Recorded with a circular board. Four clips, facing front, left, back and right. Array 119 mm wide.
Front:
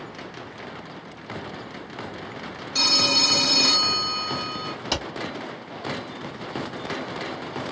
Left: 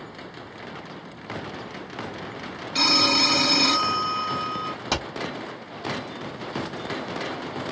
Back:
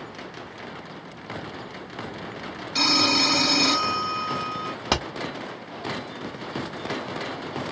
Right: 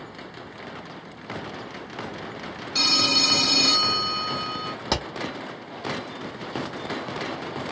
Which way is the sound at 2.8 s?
130° left.